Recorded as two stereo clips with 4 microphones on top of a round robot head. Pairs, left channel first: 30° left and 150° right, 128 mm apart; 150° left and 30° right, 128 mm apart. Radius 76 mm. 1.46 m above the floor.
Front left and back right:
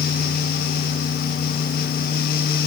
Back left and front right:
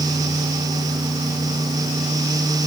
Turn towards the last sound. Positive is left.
No sound to turn to.